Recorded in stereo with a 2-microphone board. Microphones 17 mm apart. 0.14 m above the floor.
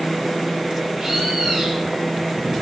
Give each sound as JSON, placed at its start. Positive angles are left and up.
{"t": 1.0, "sound": "a bird", "side_deg": -10, "distance_m": 3.0}